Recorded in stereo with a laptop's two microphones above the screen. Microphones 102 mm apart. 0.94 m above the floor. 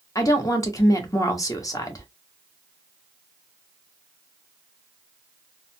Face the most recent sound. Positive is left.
turn(degrees=35)  # may be behind; listen again after turning